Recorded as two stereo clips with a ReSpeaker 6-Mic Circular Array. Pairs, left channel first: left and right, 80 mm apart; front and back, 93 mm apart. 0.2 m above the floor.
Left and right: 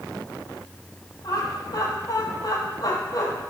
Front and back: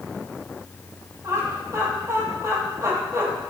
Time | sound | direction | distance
1.2 | laughter | 125° left | 6 m